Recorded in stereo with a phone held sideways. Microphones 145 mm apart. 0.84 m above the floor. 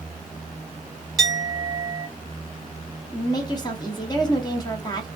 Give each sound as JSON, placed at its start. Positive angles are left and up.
{"t": 1.2, "sound": "a clink", "side_deg": 0, "distance_m": 1.8}
{"t": 3.1, "sound": "a woman speaking", "side_deg": 30, "distance_m": 1.0}